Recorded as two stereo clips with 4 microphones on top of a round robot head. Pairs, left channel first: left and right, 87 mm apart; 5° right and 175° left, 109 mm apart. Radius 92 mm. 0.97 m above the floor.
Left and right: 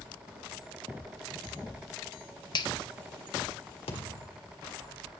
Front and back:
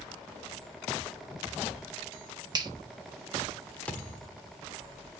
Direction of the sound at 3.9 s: 75° left.